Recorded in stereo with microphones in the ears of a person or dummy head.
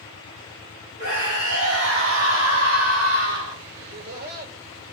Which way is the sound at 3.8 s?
55° right (ahead or behind).